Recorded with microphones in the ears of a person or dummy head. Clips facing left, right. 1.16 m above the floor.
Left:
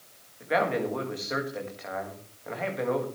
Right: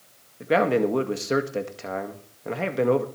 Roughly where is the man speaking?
Right.